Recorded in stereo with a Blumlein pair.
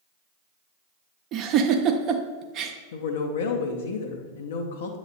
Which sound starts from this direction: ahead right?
A giggle, at 1.3 s.